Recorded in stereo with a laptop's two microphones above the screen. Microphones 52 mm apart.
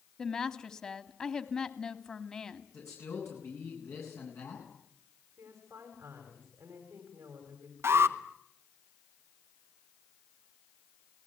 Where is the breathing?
I don't hear breathing.